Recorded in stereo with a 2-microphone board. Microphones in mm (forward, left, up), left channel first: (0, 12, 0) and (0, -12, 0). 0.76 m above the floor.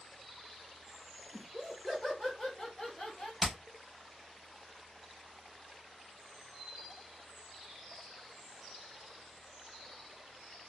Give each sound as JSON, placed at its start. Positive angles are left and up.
{"t": 1.3, "sound": "laughter", "side_deg": -5, "distance_m": 0.9}
{"t": 3.4, "sound": "hammering", "side_deg": 5, "distance_m": 0.9}